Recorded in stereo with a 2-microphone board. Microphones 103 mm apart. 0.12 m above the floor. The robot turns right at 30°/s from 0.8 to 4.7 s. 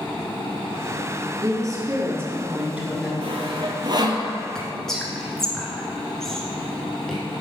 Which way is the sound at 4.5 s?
5° left (ahead or behind).